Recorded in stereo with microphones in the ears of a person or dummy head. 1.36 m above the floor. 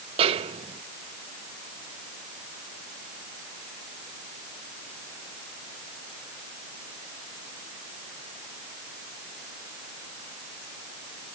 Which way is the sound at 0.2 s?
30° right (ahead or behind).